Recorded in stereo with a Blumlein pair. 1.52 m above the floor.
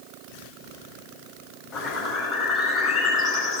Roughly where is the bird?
Ahead.